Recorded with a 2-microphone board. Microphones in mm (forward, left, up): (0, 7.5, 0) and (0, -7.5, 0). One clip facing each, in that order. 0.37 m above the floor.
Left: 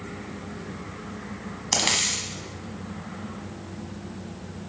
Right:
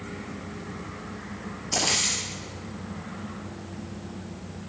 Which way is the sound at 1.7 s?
55° left (ahead or behind).